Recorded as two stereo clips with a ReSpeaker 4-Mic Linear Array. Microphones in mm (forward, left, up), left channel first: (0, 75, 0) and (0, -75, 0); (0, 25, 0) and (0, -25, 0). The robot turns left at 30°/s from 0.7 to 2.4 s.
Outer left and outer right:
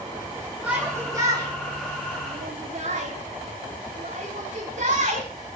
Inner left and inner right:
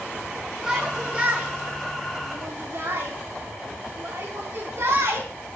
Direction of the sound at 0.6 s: 10° right (ahead or behind).